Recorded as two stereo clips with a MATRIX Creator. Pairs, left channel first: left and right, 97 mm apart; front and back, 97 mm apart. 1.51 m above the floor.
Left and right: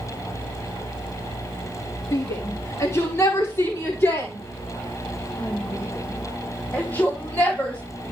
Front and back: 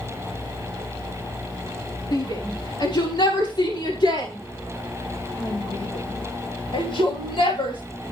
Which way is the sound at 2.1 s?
35° left.